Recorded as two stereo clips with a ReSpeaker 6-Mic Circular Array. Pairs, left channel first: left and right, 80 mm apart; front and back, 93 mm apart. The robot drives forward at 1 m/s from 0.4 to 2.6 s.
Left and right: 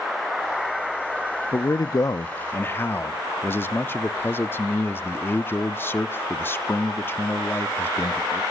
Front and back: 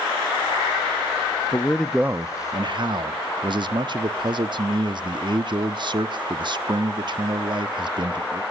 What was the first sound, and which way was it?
A man speaking, 45° left.